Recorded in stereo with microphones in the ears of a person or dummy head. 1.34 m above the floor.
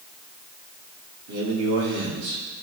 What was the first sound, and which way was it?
A man speaking, 85° right.